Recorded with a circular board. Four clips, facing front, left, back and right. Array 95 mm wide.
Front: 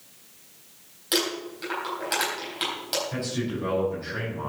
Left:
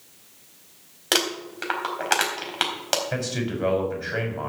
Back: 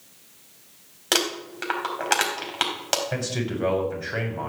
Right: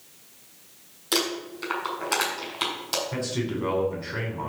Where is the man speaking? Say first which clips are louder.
Left 1 dB, back 1 dB; 130° left, 6 m.